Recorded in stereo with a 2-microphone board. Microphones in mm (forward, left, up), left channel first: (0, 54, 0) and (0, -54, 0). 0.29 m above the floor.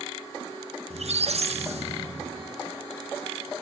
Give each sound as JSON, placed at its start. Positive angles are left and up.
{"t": 0.9, "sound": "a squeak", "side_deg": -85, "distance_m": 1.1}